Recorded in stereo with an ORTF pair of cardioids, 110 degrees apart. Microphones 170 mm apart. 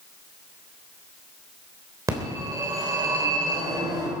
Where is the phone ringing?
20° right, 3.5 m.